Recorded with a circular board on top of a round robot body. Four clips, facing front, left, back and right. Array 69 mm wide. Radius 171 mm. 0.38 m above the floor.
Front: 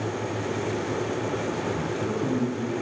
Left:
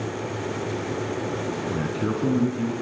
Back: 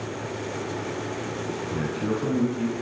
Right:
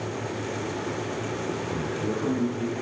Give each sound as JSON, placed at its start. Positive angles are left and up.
{"t": 1.7, "sound": "a man speaking", "azimuth_deg": 95, "distance_m": 6.5}